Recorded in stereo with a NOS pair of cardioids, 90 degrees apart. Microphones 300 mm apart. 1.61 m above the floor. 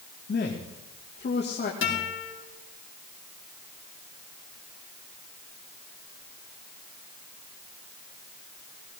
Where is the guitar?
40° left, 5.5 m.